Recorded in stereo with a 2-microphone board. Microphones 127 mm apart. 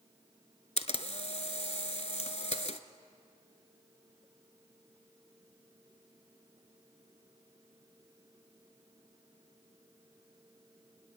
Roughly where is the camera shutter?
Left.